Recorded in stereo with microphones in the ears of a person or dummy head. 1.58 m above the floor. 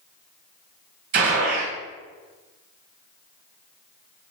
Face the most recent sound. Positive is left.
turn(degrees=-50)  # may be behind; listen again after turning